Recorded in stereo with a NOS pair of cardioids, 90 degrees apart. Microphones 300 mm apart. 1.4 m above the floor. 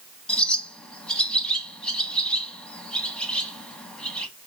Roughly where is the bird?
Ahead.